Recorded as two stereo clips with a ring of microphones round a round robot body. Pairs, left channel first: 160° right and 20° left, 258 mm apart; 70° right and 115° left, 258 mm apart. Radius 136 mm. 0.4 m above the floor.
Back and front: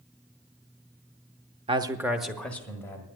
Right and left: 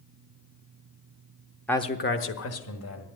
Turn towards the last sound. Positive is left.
turn(degrees=-80)